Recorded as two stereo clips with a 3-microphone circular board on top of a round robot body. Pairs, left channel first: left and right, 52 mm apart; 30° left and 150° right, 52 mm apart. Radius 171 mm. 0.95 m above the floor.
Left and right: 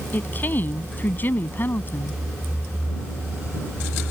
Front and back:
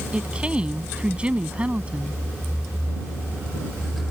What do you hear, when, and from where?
0.1 s a woman speaking: 140° left